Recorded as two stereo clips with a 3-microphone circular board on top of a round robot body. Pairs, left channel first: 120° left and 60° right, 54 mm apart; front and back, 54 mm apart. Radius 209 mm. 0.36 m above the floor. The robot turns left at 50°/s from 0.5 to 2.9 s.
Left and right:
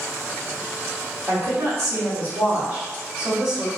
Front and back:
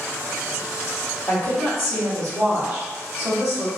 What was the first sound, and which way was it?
A woman speaking, 25° right.